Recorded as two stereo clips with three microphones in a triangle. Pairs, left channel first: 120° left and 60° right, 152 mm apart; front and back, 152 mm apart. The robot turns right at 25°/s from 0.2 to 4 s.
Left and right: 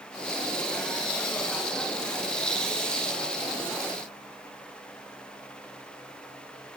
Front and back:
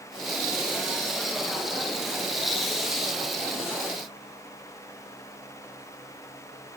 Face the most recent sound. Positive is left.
No sound to turn to.